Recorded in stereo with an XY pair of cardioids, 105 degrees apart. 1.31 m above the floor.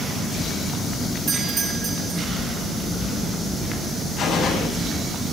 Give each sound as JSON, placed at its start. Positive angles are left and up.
{"t": 1.3, "sound": "a doorbell", "azimuth_deg": -45, "distance_m": 3.5}
{"t": 4.2, "sound": "a gunshot", "azimuth_deg": 65, "distance_m": 8.0}